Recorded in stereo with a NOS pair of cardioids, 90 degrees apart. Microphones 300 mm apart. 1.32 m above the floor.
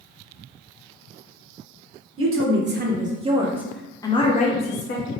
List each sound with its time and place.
2.2 s a woman speaking: 50° right, 1.1 m; by 5.1 s 45° left, 1.1 m